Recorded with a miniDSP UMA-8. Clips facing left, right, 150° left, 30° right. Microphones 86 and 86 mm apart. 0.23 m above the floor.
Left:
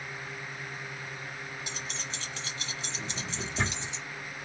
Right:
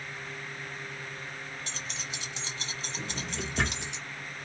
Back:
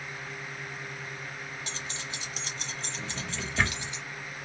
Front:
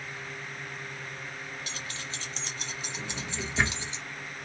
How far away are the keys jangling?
About 0.9 m.